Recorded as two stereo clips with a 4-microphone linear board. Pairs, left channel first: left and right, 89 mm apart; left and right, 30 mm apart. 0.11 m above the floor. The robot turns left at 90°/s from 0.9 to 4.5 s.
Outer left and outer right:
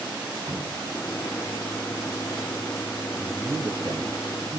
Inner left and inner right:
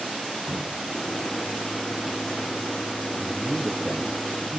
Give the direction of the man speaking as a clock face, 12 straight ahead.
12 o'clock.